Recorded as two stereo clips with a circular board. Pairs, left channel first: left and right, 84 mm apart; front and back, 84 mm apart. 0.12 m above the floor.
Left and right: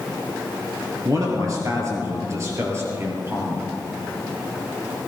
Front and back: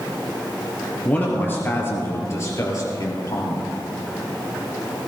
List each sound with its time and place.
1.1 s a man speaking: 65° right, 2.5 m; by 3.6 s 30° right, 3 m